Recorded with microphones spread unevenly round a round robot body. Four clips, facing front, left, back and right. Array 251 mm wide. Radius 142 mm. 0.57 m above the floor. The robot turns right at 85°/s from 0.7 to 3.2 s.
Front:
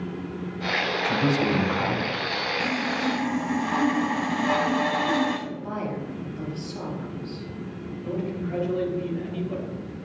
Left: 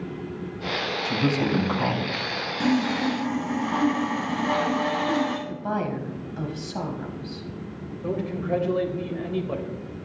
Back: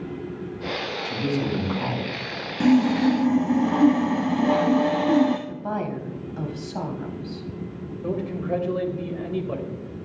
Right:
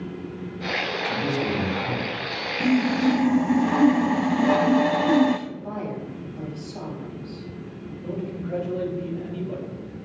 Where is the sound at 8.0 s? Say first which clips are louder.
Left 4 dB, back 3 dB; 110° left, 3.5 m.